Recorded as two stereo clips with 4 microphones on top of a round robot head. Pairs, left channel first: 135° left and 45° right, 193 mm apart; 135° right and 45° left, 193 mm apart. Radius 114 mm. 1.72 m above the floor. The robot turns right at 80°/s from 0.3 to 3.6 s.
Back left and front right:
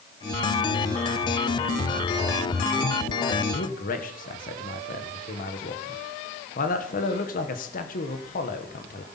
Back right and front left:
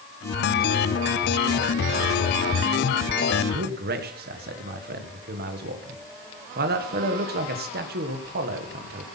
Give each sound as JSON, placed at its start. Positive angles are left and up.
{"t": 3.5, "sound": "a man speaking", "azimuth_deg": 80, "distance_m": 1.3}